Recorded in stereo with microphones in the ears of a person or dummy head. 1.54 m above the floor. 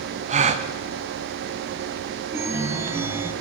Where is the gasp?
30° right (ahead or behind), 0.5 m.